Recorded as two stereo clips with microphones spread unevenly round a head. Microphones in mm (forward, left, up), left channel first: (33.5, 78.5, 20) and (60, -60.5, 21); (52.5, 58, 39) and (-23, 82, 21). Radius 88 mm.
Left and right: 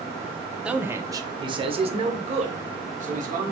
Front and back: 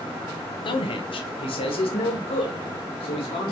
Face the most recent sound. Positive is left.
turn(degrees=-50)